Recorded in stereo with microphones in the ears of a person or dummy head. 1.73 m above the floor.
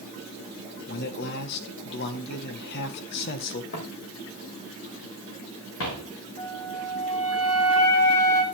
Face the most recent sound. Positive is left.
turn(degrees=30)  # may be behind; listen again after turning